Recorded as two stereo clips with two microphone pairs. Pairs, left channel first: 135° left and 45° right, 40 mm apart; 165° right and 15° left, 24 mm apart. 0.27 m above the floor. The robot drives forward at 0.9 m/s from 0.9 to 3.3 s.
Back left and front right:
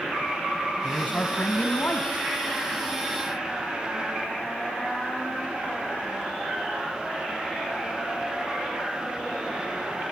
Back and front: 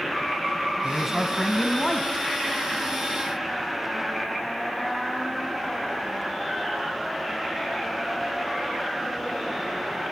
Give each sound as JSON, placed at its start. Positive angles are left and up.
{"t": 0.8, "sound": "a man speaking", "azimuth_deg": 100, "distance_m": 2.0}